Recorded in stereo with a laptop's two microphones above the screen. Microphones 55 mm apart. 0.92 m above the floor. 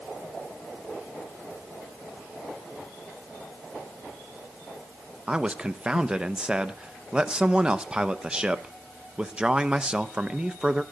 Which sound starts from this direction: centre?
A man speaking, at 5.3 s.